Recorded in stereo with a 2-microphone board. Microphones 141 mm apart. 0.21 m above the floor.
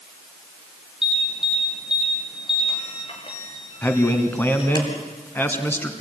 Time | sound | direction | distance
1.0 | an alarm | 35° left (ahead or behind) | 5 m
3.8 | a man speaking | 15° left (ahead or behind) | 2.5 m